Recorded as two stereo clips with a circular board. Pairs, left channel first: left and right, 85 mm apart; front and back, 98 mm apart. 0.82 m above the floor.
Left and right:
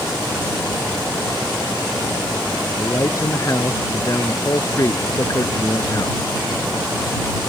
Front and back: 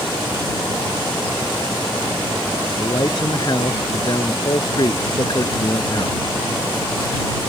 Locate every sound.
2.8 s a man speaking: 40° left